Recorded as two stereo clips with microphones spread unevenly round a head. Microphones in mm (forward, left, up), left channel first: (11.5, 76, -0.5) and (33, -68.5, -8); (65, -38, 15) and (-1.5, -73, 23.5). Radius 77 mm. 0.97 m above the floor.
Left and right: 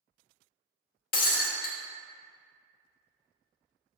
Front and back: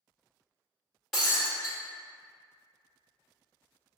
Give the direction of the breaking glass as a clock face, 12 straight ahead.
8 o'clock.